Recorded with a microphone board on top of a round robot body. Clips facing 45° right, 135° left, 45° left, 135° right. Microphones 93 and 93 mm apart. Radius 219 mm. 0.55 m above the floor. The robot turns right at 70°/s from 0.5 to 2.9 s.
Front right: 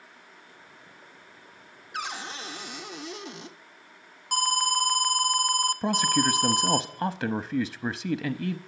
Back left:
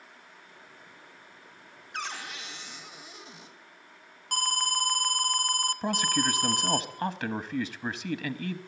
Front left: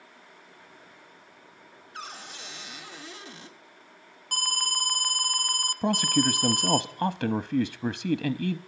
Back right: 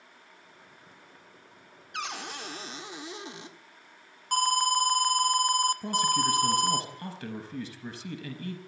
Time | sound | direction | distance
1.9 | a cupboard door | 130° right | 1.4 m
4.3 | an alarm | 110° right | 1.1 m
5.8 | a man speaking | 30° left | 0.9 m